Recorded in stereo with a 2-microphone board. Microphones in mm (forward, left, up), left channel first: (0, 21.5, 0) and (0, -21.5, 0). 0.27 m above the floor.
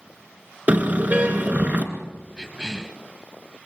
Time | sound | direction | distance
0.7 | a car horn | 45° right (ahead or behind) | 2 m
2.4 | a cough | 15° right (ahead or behind) | 1.9 m